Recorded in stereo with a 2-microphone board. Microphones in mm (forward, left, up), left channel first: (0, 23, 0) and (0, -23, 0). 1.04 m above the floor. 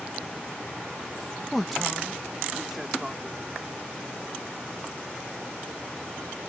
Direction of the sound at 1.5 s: 5° left (ahead or behind).